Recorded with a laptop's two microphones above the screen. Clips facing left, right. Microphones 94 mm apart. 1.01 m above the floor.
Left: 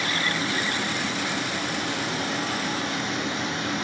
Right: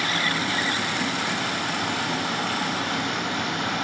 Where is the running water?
55° right (ahead or behind), 8.5 m.